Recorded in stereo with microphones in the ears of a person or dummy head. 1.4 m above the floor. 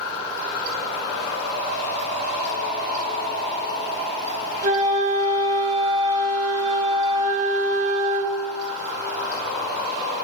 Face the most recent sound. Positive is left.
turn(degrees=-40)  # may be behind; listen again after turning